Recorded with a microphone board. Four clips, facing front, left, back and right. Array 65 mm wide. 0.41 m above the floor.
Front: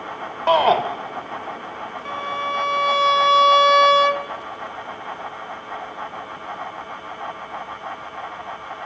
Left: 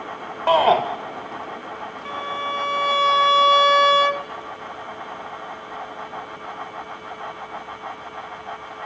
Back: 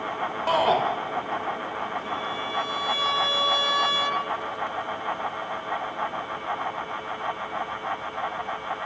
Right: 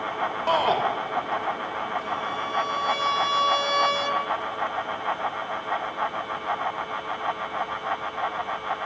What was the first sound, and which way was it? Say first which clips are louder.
A shout: left 7 dB, front 6 dB; 40° left.